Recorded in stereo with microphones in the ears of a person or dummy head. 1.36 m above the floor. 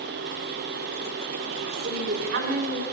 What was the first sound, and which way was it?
A woman speaking, 60° right (ahead or behind).